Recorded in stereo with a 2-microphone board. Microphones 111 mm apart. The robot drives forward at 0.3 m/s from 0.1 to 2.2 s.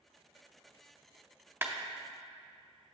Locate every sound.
1.6 s a clap: 20° right (ahead or behind), 0.5 m